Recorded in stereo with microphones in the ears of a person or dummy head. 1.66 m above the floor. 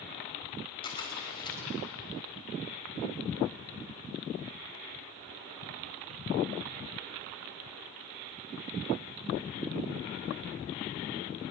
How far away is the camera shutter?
About 3.5 m.